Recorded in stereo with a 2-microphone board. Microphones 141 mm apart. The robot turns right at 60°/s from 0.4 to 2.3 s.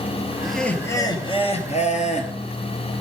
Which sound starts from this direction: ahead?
Laughter, at 0.4 s.